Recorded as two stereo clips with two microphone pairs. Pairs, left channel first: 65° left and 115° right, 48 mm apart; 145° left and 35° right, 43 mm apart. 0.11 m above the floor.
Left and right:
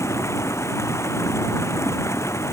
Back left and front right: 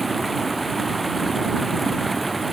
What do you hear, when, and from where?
0.0 s running water: 55° left